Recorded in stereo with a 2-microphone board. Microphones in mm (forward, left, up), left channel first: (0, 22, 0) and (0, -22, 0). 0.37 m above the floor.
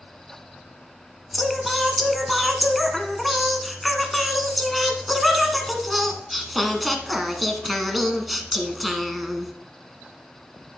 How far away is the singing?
About 1.0 m.